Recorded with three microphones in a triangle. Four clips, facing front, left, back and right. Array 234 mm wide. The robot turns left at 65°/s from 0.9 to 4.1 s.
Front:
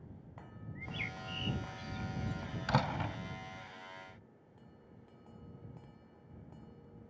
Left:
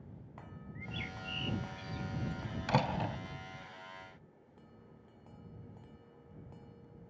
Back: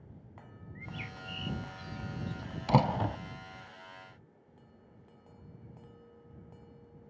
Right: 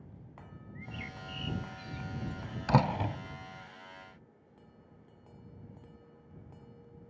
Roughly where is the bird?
Right.